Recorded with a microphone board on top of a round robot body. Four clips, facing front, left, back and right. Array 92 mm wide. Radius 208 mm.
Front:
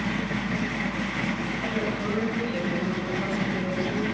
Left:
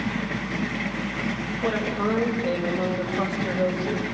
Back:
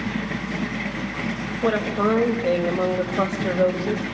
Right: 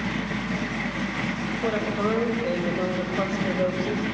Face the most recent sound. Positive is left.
turn(degrees=-170)